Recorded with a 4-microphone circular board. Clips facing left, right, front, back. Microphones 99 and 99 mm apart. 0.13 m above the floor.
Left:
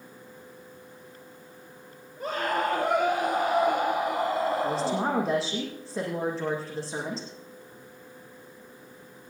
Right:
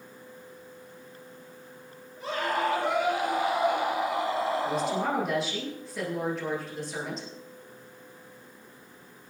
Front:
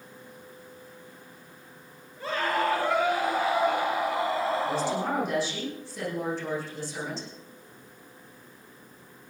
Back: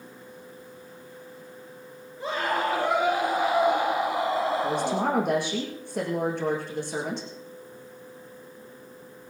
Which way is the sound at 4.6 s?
150° left.